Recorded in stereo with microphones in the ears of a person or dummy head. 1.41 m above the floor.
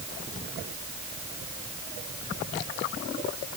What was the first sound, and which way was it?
Only background noise.